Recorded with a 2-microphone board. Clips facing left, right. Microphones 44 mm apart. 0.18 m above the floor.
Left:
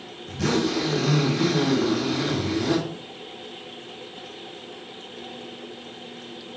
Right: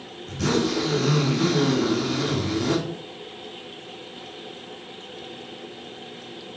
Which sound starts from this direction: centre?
A zipper, at 0.3 s.